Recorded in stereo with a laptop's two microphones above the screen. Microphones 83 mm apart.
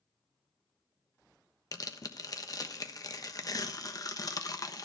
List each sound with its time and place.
1.7 s tearing paper: 45° left (ahead or behind), 1.0 m